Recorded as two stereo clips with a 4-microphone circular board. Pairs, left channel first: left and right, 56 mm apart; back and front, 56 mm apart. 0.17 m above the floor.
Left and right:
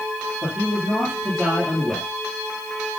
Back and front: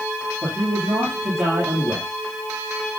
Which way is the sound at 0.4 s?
Straight ahead.